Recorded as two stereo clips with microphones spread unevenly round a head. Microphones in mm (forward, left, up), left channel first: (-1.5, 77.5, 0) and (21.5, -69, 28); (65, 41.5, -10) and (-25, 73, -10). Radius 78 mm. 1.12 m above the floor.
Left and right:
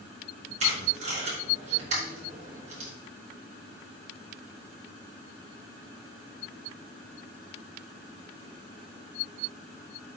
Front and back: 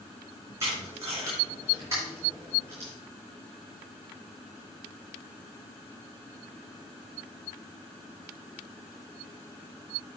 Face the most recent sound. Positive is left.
turn(degrees=-130)